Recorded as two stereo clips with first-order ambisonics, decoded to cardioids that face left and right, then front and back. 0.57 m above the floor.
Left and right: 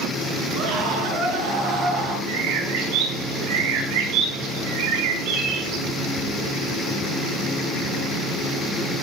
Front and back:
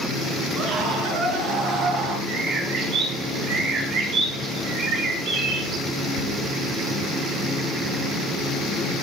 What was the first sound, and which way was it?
A scream, 135° right.